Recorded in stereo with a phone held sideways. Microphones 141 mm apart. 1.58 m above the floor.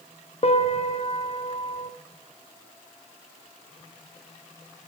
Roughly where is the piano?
Left.